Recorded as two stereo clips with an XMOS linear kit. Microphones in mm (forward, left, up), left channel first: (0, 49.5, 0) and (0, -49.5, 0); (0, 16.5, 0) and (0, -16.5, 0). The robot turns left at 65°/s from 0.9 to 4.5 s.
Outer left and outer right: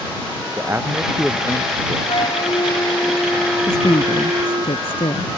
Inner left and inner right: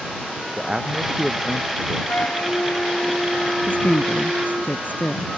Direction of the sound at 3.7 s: 140° left.